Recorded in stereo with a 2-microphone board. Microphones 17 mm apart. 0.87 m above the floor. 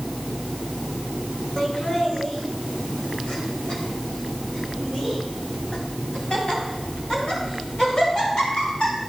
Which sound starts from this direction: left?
Laughter, at 1.6 s.